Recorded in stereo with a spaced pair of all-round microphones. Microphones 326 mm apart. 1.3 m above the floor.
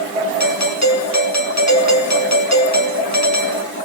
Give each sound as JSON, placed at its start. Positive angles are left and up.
{"t": 0.4, "sound": "a doorbell", "side_deg": 55, "distance_m": 2.5}